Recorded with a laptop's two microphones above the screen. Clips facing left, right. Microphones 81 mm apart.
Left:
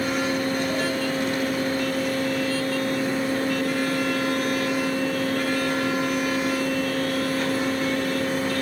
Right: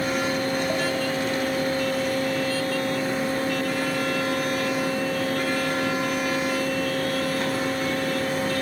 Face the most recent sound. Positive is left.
turn(degrees=-40)  # may be behind; listen again after turning